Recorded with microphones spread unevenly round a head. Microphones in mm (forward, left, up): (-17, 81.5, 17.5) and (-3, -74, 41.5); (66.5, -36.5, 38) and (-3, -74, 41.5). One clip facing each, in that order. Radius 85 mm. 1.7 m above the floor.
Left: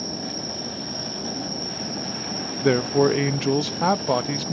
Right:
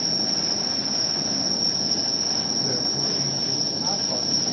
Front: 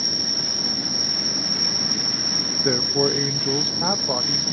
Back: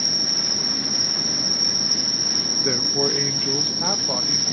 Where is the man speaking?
110° left, 0.7 m.